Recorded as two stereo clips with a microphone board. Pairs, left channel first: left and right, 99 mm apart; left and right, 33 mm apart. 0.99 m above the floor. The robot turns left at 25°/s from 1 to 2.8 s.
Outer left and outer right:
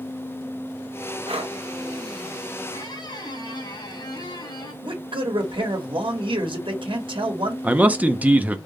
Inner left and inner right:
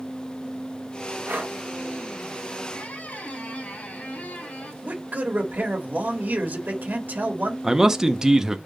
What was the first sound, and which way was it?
Breathing, 75° right (ahead or behind).